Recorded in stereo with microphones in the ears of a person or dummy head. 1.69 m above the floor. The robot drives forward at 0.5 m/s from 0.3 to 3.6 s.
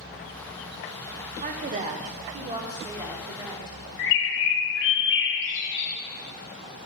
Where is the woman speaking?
40° right (ahead or behind), 0.9 m; by 3.8 s 20° right (ahead or behind), 1.9 m.